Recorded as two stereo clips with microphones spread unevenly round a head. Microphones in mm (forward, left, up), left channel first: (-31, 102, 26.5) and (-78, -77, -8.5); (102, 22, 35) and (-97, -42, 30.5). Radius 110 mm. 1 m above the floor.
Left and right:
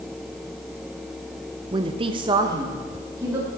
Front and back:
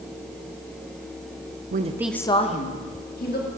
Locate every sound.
1.7 s a woman speaking: 150° right, 0.7 m; by 3.5 s 25° right, 2.5 m